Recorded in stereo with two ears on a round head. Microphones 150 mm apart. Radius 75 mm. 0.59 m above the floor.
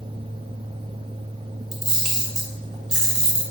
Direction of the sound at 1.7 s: 5° right (ahead or behind).